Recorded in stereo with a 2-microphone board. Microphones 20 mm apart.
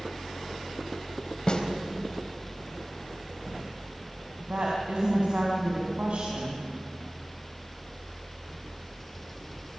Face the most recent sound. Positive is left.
turn(degrees=-65)  # may be behind; listen again after turning